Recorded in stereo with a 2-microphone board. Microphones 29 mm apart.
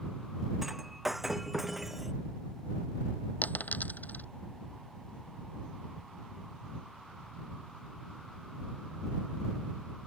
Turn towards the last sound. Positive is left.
turn(degrees=75)  # may be behind; listen again after turning